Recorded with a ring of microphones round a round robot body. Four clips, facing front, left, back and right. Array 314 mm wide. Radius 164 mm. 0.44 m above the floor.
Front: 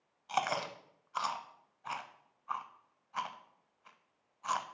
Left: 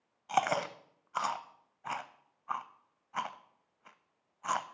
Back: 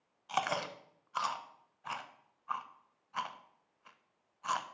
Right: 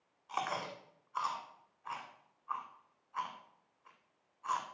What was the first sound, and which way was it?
Chewing, 100° left.